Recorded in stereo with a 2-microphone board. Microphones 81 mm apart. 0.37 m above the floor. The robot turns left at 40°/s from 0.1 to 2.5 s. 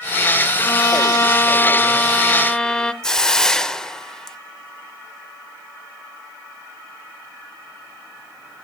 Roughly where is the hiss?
Centre.